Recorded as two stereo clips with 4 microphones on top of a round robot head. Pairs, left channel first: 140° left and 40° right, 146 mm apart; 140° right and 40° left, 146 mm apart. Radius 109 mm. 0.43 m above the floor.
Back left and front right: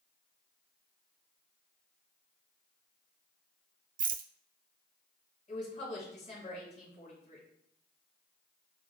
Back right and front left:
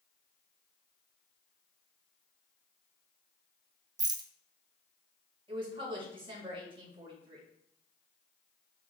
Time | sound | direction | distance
4.0 | a rattle | 20° right | 0.7 m
5.5 | a woman speaking | 95° left | 5 m